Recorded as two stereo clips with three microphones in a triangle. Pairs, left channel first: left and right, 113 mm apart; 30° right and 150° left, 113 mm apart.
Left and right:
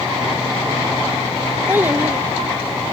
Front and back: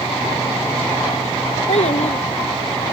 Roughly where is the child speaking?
Ahead.